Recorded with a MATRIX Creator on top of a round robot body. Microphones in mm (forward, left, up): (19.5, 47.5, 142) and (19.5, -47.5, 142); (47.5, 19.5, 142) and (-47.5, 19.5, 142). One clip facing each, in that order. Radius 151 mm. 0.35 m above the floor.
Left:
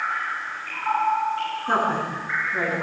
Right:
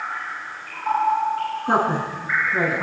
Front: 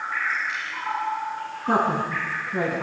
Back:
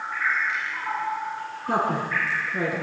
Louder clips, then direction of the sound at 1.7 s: Right 2 dB, front 2 dB; 20° right.